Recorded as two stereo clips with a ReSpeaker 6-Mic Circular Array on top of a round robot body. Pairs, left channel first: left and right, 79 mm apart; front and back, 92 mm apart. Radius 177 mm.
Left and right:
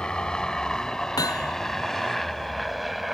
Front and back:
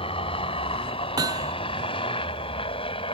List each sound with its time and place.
0.0 s a helicopter: 10° left; by 3.1 s straight ahead
1.2 s hammering: 130° left